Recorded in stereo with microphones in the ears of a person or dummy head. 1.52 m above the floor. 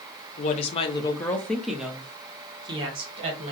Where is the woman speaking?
45° left (ahead or behind), 0.9 m; by 3.5 s 40° right (ahead or behind), 1.5 m.